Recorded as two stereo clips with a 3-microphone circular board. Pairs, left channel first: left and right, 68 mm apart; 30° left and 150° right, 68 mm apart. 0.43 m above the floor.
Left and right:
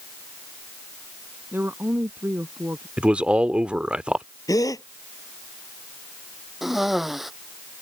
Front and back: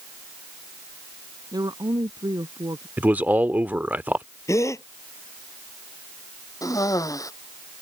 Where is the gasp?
70° left.